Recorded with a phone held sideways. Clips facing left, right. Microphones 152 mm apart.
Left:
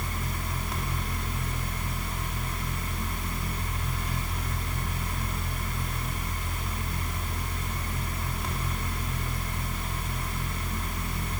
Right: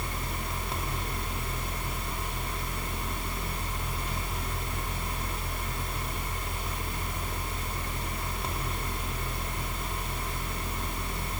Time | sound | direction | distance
0.0 | a fan | 30° right (ahead or behind) | 6 m